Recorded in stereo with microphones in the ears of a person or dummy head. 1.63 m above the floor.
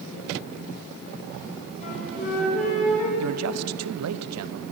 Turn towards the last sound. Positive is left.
turn(degrees=-85)